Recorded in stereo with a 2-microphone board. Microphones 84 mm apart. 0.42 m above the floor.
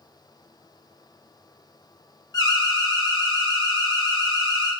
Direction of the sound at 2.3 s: 50° left (ahead or behind).